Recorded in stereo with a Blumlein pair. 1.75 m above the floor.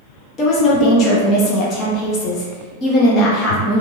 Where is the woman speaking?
30° left, 1.1 m.